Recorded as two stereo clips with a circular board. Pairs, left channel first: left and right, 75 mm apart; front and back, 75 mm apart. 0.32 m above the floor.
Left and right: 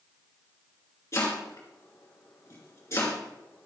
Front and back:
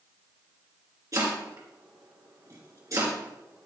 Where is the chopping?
140° left, 2.5 m.